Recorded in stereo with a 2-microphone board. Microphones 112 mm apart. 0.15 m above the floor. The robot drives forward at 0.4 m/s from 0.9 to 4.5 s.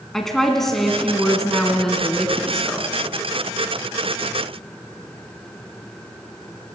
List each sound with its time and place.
0.1 s a woman speaking: 5° left (ahead or behind), 1.6 m